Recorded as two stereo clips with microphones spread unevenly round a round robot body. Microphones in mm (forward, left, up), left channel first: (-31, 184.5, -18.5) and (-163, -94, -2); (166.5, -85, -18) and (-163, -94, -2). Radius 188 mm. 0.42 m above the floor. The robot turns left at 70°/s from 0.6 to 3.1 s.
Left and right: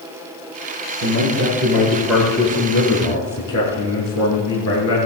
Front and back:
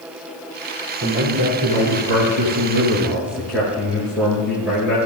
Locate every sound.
1.0 s a man speaking: 125° right, 6 m; by 5.0 s 90° left, 6 m